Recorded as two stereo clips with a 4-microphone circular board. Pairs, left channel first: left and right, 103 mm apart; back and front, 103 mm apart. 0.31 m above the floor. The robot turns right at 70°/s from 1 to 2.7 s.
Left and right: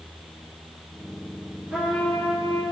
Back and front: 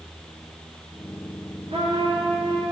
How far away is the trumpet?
About 3.5 m.